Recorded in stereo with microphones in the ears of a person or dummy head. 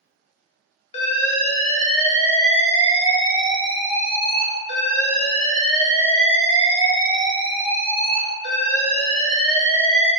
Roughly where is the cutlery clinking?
No cutlery clinking in this recording.